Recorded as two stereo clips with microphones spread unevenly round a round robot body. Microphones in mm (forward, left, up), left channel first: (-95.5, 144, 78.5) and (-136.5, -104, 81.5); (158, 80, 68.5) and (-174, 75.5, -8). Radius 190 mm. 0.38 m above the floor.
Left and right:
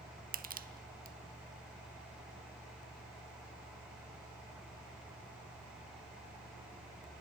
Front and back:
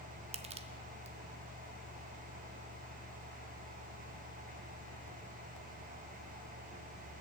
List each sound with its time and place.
0.3 s crushing: 135° right, 0.9 m